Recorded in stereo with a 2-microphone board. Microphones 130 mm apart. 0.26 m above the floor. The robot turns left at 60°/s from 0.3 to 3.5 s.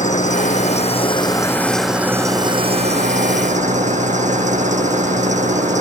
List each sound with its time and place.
0.0 s an engine running: 90° left; by 5.8 s 100° right